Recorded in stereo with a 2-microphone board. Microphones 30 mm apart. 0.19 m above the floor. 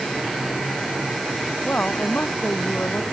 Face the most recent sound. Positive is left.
turn(degrees=65)  # may be behind; listen again after turning